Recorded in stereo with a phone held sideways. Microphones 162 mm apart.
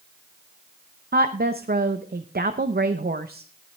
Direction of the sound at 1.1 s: 70° right (ahead or behind).